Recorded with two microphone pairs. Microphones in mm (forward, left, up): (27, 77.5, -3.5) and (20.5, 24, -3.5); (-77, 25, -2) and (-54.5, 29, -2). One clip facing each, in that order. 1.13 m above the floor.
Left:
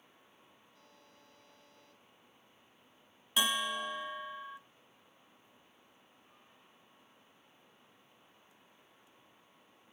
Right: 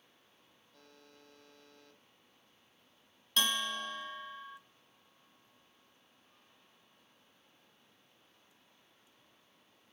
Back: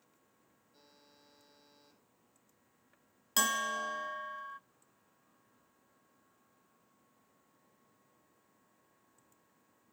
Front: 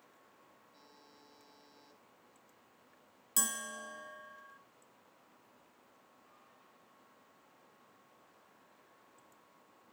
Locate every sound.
0.7 s a buzzer: 70° right, 9.5 m
3.4 s a bell: 150° left, 0.7 m